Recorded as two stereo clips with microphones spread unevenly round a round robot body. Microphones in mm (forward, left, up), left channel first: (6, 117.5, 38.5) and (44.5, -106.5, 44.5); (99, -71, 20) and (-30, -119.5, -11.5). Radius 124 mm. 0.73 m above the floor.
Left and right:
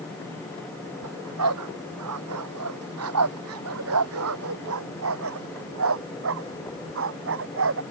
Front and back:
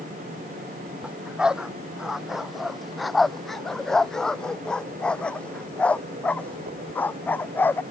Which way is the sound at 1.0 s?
75° right.